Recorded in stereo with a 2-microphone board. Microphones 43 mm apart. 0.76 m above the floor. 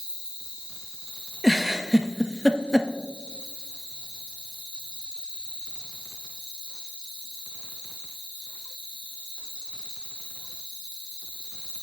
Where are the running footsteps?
I don't hear running footsteps.